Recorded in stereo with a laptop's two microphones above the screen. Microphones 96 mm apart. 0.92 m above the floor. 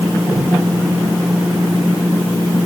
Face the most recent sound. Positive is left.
No sound to turn to.